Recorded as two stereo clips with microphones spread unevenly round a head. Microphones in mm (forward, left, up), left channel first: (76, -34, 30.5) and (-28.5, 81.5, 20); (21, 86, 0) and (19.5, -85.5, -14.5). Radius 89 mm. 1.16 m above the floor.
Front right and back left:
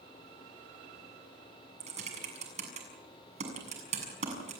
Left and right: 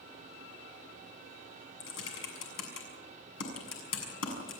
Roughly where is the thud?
I don't hear a thud.